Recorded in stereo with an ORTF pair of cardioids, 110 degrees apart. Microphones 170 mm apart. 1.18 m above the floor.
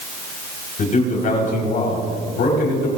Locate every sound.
0.8 s a man speaking: 50° left, 4.5 m; by 2.9 s 80° left, 4.5 m